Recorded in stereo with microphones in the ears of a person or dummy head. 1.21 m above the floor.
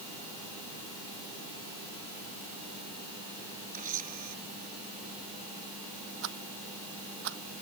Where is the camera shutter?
35° right (ahead or behind).